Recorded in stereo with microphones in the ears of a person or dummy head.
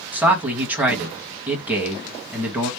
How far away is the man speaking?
About 1.6 m.